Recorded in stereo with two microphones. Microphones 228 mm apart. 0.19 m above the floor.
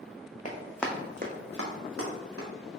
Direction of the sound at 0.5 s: 35° left (ahead or behind).